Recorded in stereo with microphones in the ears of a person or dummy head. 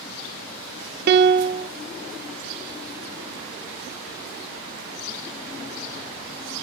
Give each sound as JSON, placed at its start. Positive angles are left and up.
{"t": 1.1, "sound": "a piano", "side_deg": -50, "distance_m": 0.6}